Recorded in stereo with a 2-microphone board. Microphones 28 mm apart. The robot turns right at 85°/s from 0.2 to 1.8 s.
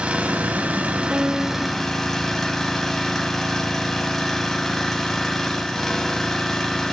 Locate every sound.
0.0 s an engine running: 125° right, 1.1 m; by 6.9 s 15° left, 1.1 m
1.1 s a piano: 80° right, 0.6 m; by 1.8 s 20° right, 0.6 m